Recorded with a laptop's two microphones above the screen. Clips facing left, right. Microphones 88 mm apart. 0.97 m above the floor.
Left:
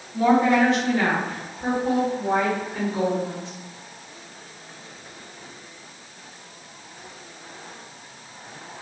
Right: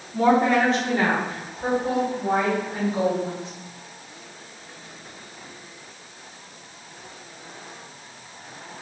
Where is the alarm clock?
I don't hear an alarm clock.